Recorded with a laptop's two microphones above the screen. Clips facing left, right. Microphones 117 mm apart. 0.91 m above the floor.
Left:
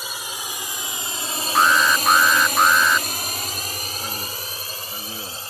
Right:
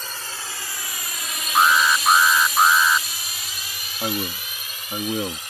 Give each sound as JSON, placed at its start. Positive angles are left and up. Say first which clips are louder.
{"t": 0.0, "sound": "a drone", "louder": "left 2 dB", "side_deg": 10}
{"t": 1.6, "sound": "an alarm", "louder": "even", "side_deg": -5}
{"t": 4.0, "sound": "a man speaking", "louder": "right 5 dB", "side_deg": -60}